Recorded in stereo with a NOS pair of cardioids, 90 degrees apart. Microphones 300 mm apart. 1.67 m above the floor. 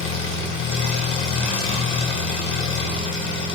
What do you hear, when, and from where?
0.0 s an engine running: 45° left, 1.3 m